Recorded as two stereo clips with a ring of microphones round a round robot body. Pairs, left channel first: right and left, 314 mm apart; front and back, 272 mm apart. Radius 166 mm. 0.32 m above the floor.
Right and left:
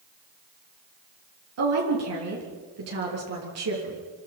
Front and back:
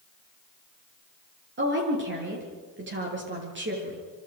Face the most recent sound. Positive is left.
turn(degrees=130)